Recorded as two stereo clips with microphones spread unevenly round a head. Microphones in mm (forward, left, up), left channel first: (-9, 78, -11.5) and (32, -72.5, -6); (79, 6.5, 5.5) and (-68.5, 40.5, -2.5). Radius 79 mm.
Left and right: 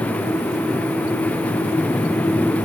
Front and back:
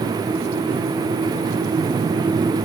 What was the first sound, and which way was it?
Only background noise.